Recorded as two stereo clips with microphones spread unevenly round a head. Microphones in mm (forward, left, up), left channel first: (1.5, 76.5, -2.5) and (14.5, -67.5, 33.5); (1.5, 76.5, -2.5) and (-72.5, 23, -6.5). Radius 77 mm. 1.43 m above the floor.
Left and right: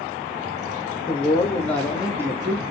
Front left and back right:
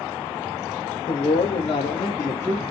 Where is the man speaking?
30° left, 0.9 m; by 2.7 s 50° right, 0.7 m.